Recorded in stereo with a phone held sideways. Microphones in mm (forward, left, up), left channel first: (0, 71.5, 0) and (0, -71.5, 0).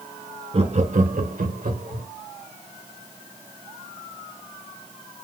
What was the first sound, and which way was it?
Laughter, 45° right (ahead or behind).